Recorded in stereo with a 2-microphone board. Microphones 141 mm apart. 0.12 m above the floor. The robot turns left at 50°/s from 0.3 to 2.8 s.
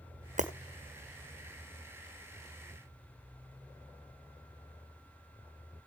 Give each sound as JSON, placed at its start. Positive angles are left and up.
{"t": 0.4, "sound": "breaking glass", "side_deg": -65, "distance_m": 1.3}